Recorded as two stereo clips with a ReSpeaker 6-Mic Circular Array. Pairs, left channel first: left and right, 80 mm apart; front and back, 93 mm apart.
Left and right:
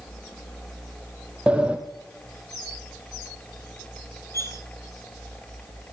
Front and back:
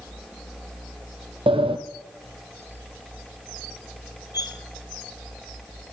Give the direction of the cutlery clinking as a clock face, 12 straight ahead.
11 o'clock.